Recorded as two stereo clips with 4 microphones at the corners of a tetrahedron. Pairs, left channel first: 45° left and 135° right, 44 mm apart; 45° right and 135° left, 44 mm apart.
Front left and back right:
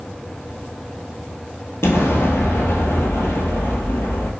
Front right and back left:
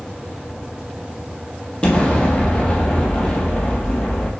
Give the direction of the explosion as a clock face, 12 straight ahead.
11 o'clock.